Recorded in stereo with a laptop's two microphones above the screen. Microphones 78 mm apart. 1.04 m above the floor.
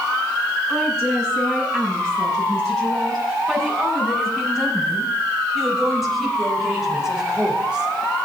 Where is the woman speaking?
10° left (ahead or behind), 9.5 m; by 7.9 s 15° right (ahead or behind), 3 m.